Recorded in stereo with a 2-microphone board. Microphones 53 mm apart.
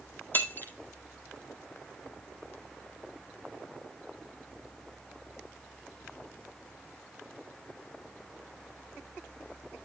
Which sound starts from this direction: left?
Breaking glass, at 0.3 s.